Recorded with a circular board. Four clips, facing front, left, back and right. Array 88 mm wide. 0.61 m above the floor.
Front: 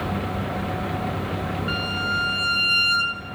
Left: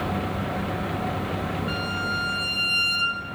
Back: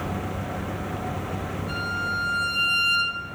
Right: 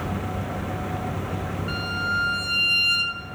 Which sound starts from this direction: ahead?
A violin, at 1.7 s.